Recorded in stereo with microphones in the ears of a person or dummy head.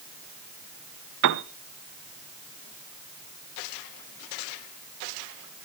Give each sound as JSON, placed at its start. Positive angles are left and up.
{"t": 1.2, "sound": "a piano", "side_deg": -70, "distance_m": 0.7}